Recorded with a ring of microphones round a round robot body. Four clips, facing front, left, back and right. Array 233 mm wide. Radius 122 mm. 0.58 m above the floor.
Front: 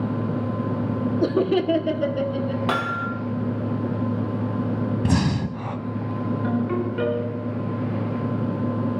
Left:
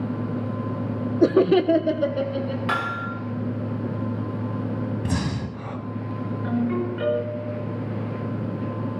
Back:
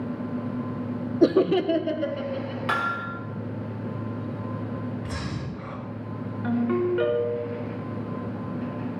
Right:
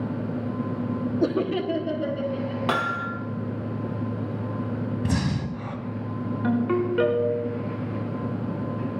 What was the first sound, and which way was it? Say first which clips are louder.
Laughter: left 9 dB, back 2 dB; 135° left.